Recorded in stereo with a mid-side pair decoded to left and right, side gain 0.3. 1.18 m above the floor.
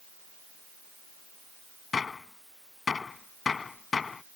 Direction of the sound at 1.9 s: 50° left.